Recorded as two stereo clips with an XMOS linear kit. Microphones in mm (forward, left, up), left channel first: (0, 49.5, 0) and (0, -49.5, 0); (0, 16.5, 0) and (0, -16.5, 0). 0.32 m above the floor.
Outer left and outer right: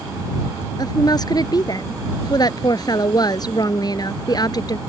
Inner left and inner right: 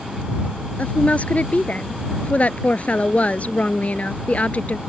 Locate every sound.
0.8 s a woman speaking: 45° left (ahead or behind)